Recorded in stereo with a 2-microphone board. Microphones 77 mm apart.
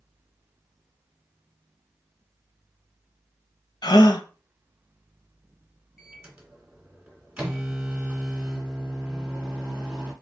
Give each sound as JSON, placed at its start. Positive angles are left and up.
{"t": 3.8, "sound": "a gasp", "side_deg": 60, "distance_m": 0.6}
{"t": 6.0, "sound": "a microwave", "side_deg": -10, "distance_m": 1.7}